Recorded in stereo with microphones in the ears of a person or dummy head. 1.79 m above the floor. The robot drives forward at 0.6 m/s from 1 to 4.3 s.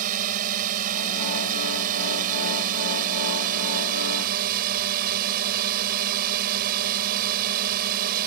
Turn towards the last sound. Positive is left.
turn(degrees=-45)  # may be behind; listen again after turning